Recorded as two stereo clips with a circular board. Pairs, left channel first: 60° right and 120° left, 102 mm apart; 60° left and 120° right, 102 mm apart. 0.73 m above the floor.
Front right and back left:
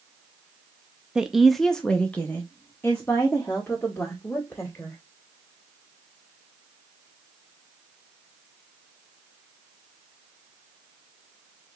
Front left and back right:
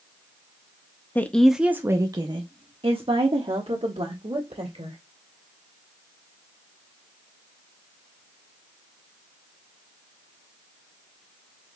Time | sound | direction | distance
1.1 | a woman speaking | 50° left | 0.5 m